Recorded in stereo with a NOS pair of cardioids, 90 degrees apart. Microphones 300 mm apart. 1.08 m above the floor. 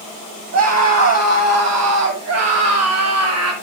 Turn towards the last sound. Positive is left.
turn(degrees=-60)